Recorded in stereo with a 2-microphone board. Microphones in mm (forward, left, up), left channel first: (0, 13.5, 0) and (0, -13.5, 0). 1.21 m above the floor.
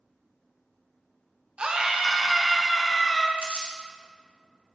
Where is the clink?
I don't hear a clink.